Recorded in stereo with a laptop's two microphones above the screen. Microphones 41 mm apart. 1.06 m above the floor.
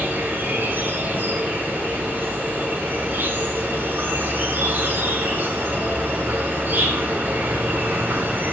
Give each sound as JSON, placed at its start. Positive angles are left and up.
{"t": 0.0, "sound": "an insect", "side_deg": -50, "distance_m": 5.0}